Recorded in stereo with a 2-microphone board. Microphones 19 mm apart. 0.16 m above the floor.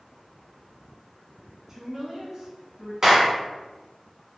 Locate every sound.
1.7 s a woman speaking: 20° right (ahead or behind), 1.2 m
3.0 s a clap: 25° right (ahead or behind), 1.0 m